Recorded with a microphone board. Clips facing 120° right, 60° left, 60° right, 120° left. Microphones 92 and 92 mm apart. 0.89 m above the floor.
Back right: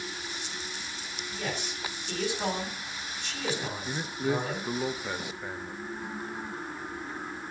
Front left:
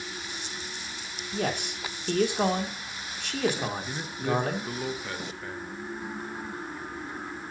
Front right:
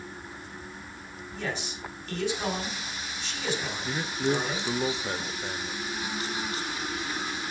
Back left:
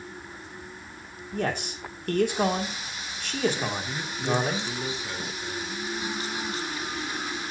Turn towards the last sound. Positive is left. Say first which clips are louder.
# even, front right 1 dB
turn(degrees=-55)